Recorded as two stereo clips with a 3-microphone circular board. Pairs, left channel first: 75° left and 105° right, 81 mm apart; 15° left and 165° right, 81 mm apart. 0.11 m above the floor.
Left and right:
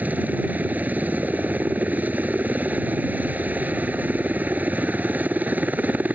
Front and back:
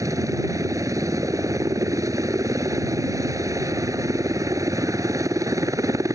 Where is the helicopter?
165° right.